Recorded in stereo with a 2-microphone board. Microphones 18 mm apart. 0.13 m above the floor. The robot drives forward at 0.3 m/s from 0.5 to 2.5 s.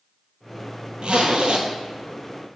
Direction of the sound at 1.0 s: 65° right (ahead or behind).